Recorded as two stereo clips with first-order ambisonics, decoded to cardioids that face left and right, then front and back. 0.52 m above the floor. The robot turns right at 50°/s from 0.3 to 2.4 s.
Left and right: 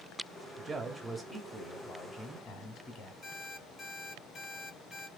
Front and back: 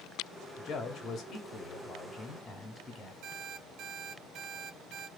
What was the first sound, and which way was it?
A man speaking, 30° right.